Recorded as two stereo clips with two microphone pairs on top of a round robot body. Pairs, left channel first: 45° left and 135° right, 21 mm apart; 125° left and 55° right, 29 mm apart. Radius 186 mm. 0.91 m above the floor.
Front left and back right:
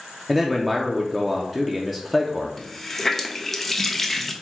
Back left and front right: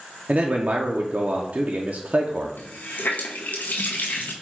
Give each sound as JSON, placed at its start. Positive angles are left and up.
{"t": 0.3, "sound": "a man speaking", "azimuth_deg": -50, "distance_m": 0.7}
{"t": 2.6, "sound": "a running tap", "azimuth_deg": 125, "distance_m": 0.6}